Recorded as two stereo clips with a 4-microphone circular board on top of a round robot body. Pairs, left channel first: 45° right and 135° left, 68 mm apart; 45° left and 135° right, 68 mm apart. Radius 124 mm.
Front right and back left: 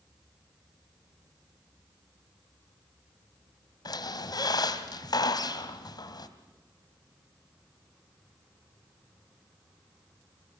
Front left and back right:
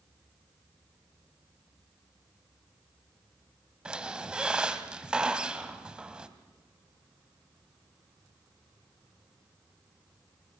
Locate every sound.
3.9 s a squeak: 60° right, 2 m